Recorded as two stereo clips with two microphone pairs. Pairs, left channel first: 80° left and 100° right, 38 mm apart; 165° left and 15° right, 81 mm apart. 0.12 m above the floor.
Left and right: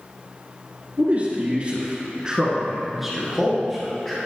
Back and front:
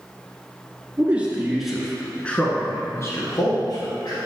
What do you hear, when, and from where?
1.0 s a man speaking: 75° right, 1.9 m; by 4.2 s 160° left, 2.5 m